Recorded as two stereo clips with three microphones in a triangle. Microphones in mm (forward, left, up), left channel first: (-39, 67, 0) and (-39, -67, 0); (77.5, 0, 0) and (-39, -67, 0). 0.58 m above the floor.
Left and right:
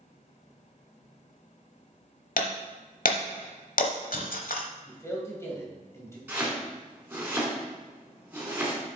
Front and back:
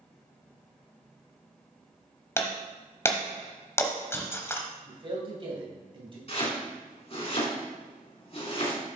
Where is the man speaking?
160° left, 2.5 m.